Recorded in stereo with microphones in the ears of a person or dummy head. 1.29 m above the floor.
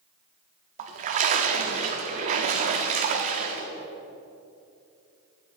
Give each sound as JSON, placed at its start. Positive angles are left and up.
{"t": 0.8, "sound": "a splash", "side_deg": -40, "distance_m": 1.3}